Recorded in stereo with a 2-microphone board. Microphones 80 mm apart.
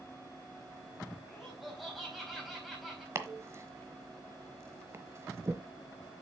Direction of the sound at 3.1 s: 35° right (ahead or behind).